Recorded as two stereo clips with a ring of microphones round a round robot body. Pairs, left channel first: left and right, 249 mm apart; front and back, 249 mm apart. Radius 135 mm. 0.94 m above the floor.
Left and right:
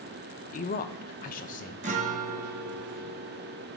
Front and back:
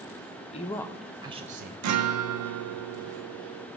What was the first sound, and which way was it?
A man speaking, 55° left.